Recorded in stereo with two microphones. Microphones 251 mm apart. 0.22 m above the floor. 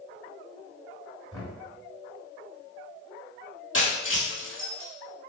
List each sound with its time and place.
1.3 s knocking: 15° left (ahead or behind), 1.4 m
3.7 s breaking glass: 60° left (ahead or behind), 1.6 m